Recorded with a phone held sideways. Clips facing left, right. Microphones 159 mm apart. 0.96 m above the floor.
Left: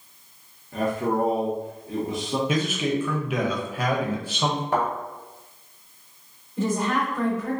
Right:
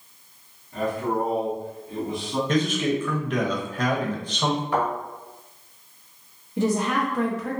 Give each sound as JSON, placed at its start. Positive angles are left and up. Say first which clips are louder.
{"t": 0.7, "sound": "a man speaking", "louder": "left 1 dB", "side_deg": 80, "distance_m": 0.9}
{"t": 2.5, "sound": "a man speaking", "louder": "right 5 dB", "side_deg": 5, "distance_m": 0.6}
{"t": 4.7, "sound": "a thud", "louder": "left 1 dB", "side_deg": 40, "distance_m": 0.9}
{"t": 6.6, "sound": "a woman speaking", "louder": "right 1 dB", "side_deg": -70, "distance_m": 0.9}